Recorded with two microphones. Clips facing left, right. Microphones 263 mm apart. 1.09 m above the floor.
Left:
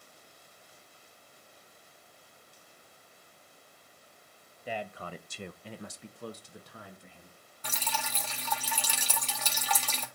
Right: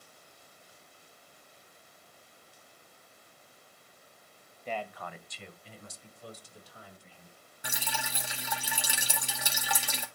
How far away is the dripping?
About 1.0 m.